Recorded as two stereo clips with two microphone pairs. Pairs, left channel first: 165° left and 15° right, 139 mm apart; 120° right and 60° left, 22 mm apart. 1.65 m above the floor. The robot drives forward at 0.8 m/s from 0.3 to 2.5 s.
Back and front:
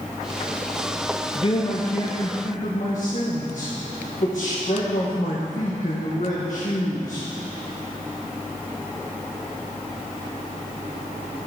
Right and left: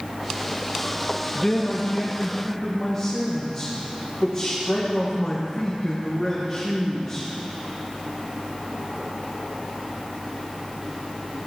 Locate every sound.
1.4 s a man speaking: 155° right, 0.5 m; by 7.3 s 175° right, 1.3 m